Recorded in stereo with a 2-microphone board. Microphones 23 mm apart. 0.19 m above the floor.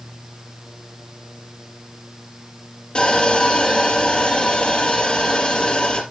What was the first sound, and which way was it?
Sawing, 50° left (ahead or behind).